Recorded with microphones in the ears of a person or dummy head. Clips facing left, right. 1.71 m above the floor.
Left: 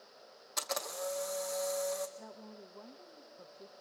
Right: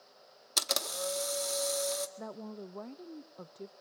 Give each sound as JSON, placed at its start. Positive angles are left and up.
{"t": 0.6, "sound": "a camera shutter", "side_deg": -45, "distance_m": 1.8}
{"t": 2.2, "sound": "a woman speaking", "side_deg": -75, "distance_m": 0.6}